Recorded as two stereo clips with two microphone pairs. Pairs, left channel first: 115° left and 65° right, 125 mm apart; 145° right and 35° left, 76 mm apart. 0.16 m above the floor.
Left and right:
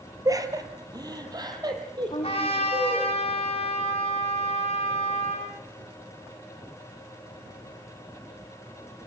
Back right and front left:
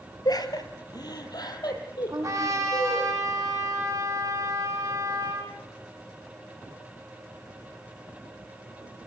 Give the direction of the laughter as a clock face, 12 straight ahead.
4 o'clock.